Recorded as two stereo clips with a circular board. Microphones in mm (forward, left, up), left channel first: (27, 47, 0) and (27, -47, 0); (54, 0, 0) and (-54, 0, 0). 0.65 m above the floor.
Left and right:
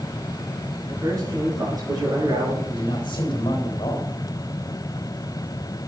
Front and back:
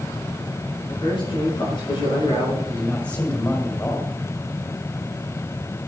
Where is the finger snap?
I don't hear a finger snap.